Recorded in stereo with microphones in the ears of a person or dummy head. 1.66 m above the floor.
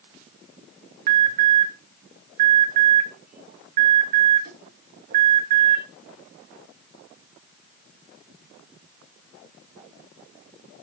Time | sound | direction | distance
1.1 | an alarm | 50° right (ahead or behind) | 2.5 m